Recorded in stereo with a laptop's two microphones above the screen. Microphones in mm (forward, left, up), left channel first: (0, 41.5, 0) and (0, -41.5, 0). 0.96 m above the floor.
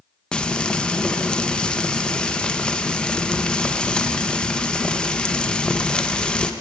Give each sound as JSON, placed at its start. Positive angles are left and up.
{"t": 0.3, "sound": "frying", "side_deg": 15, "distance_m": 0.5}